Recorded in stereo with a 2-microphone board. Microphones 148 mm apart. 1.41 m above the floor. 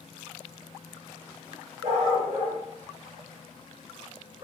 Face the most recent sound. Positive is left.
turn(degrees=-35)  # may be behind; listen again after turning